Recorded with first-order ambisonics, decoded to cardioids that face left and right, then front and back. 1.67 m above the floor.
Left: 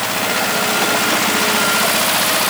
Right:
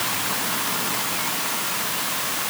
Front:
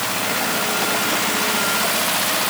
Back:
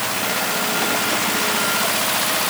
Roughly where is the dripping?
I don't hear dripping.